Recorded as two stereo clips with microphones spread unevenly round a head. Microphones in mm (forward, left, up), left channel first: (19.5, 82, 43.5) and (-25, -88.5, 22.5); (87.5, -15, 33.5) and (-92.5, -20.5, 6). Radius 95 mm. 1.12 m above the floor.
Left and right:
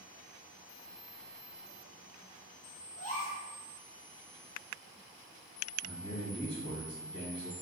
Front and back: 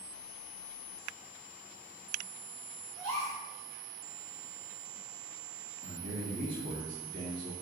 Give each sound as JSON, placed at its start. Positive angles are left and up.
{"t": 3.0, "sound": "a gasp", "azimuth_deg": 125, "distance_m": 1.0}
{"t": 5.8, "sound": "a man speaking", "azimuth_deg": 135, "distance_m": 1.4}